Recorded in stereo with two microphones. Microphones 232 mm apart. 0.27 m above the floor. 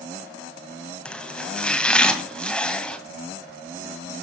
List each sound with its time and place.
1.1 s chopping: 5° left (ahead or behind), 1.8 m